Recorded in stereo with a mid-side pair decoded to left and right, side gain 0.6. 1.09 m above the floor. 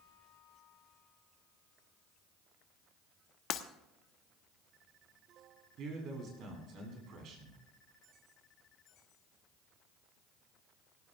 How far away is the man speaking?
About 9 m.